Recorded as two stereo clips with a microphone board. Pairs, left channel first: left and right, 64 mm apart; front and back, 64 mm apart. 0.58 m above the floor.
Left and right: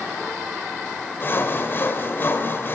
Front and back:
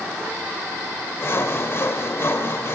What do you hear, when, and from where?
1.2 s sawing: 40° left, 2.5 m